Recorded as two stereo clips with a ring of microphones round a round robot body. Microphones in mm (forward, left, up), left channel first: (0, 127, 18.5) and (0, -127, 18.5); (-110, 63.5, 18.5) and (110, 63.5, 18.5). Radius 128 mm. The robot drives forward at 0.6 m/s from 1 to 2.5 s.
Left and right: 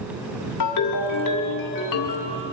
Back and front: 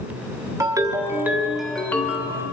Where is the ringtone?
75° left, 1.4 m; by 2.4 s 110° left, 1.5 m.